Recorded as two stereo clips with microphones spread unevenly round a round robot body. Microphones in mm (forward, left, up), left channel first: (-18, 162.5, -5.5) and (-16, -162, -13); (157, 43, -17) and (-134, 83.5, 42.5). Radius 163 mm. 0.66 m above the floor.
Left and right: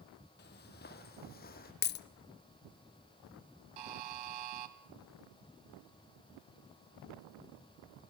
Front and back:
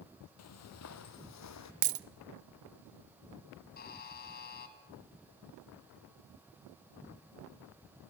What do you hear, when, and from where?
0.4 s footsteps: 30° left, 1.5 m; by 1.7 s 25° left, 2 m
1.8 s a dropped coin: 150° left, 0.7 m
3.8 s a buzzer: 75° right, 1.7 m